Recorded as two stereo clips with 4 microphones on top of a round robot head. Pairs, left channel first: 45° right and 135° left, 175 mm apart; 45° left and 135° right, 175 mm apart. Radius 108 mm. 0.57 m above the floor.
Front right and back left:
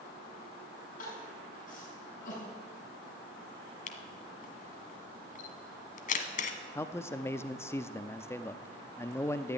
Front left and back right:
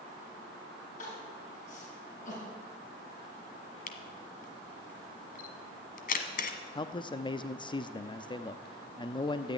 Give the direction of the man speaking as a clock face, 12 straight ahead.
11 o'clock.